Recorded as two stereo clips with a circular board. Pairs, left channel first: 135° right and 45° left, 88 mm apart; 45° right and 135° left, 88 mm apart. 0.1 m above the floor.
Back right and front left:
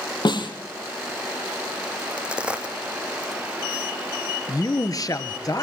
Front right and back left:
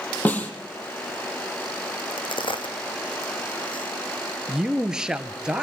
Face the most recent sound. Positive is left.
turn(degrees=-145)